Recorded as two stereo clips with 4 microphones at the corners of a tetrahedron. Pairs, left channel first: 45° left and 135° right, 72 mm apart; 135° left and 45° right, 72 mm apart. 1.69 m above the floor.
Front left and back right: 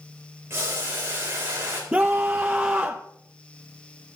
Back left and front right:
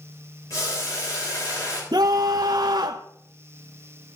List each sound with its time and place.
0.5 s boiling: 170° left, 3.5 m
1.9 s a scream: 60° right, 0.6 m